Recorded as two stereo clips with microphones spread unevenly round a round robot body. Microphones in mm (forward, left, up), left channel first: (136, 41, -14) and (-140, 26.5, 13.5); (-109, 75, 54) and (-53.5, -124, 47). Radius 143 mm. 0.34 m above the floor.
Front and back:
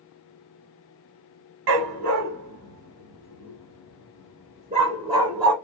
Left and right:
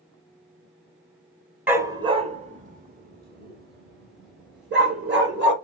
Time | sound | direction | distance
1.7 | a dog barking | 155° right | 0.8 m